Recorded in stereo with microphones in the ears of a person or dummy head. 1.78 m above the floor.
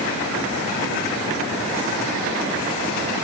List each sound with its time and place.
Only background noise.